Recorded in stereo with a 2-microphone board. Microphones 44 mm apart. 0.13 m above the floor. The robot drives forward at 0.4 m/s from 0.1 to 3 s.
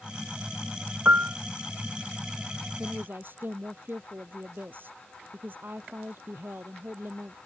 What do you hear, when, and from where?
1.1 s a piano: 45° right (ahead or behind)
2.8 s a woman speaking: 50° right (ahead or behind)